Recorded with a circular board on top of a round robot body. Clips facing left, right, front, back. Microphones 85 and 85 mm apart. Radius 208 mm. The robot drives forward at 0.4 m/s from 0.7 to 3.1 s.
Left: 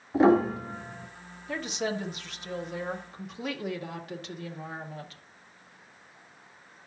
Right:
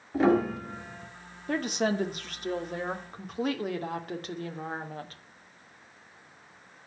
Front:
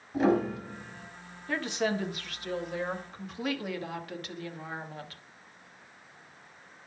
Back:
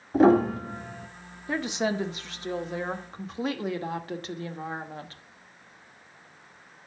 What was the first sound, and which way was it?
A piano, 155° left.